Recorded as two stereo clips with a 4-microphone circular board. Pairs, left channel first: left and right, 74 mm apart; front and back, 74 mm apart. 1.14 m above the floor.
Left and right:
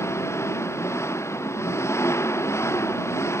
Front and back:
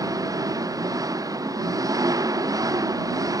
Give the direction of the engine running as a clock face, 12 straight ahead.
7 o'clock.